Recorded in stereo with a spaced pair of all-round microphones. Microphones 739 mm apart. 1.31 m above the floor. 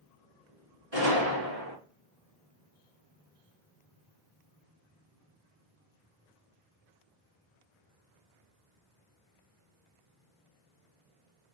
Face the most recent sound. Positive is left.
turn(degrees=-60)  # may be behind; listen again after turning